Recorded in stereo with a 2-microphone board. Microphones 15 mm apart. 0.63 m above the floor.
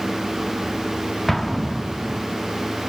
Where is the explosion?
10° left (ahead or behind), 0.6 m.